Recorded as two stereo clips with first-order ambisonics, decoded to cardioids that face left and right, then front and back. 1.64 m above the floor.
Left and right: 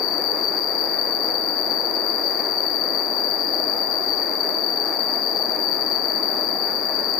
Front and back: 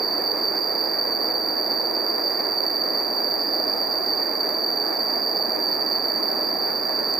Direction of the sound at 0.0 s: 110° left.